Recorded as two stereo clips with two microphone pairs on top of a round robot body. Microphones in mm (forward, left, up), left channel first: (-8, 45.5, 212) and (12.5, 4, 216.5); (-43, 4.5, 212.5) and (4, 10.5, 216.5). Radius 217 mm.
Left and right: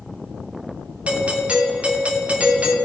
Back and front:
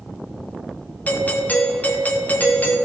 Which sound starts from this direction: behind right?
A doorbell, at 1.1 s.